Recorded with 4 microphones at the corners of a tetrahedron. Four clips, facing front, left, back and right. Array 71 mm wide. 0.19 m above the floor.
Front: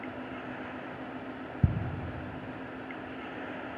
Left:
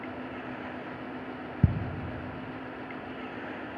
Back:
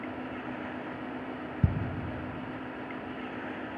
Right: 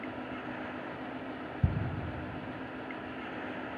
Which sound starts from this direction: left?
Ticking, at 1.6 s.